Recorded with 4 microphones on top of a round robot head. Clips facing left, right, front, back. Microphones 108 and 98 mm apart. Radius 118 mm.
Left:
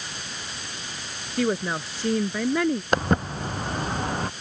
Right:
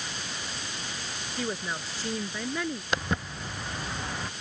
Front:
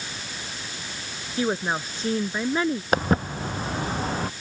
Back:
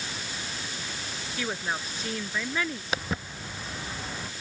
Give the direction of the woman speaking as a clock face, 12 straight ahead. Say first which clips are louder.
Left 9 dB, front 7 dB; 10 o'clock.